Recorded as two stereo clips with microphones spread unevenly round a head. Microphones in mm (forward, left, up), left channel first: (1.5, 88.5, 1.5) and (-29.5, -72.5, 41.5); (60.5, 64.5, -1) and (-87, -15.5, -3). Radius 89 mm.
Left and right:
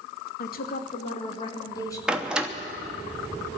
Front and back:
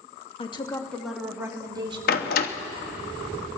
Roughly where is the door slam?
Ahead.